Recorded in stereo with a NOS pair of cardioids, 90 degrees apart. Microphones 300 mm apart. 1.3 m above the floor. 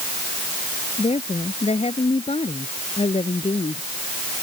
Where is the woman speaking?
20° left.